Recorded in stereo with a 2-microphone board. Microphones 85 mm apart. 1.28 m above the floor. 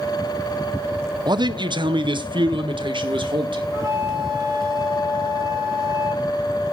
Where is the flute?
35° right (ahead or behind), 3.5 m.